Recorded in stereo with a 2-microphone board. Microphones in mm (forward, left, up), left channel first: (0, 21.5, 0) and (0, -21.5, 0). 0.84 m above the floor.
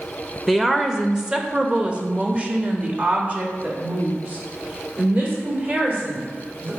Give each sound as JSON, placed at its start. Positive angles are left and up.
{"t": 0.5, "sound": "a woman speaking", "side_deg": -5, "distance_m": 1.0}